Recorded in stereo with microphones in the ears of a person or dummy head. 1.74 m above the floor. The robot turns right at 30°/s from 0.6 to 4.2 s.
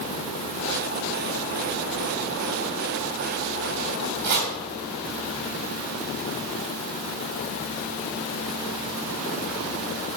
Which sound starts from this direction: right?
Chopping, at 4.2 s.